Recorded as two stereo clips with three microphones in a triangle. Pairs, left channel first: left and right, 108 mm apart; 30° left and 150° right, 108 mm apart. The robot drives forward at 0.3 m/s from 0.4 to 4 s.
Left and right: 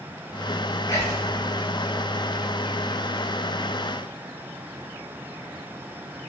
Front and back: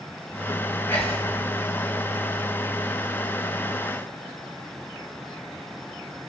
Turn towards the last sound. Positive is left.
turn(degrees=140)